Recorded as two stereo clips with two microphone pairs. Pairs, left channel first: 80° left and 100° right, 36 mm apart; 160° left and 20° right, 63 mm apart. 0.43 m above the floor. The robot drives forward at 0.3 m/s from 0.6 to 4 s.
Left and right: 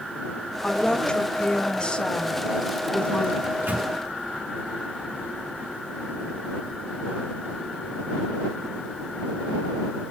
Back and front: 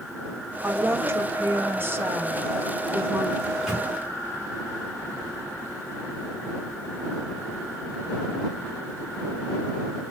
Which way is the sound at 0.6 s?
25° left.